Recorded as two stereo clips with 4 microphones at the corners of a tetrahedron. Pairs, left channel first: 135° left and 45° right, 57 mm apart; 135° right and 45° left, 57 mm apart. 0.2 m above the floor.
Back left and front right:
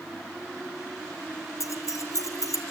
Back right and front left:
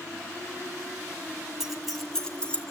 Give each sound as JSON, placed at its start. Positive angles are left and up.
{"t": 1.6, "sound": "keys jangling", "azimuth_deg": 130, "distance_m": 1.8}